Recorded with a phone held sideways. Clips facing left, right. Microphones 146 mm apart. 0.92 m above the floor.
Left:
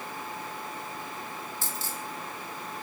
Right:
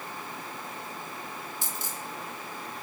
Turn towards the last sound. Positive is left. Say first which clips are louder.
# left 1 dB
turn(degrees=-20)  # may be behind; listen again after turning